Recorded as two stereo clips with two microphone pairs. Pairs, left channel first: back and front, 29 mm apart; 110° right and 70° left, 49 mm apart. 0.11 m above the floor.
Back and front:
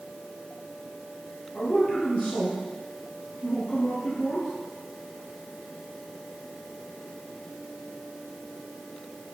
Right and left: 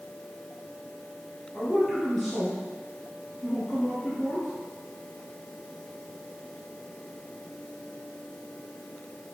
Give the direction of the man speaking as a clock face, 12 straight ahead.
7 o'clock.